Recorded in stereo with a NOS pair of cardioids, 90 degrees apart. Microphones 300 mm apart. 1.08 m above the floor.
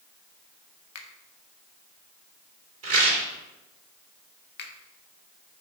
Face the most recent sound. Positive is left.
turn(degrees=35)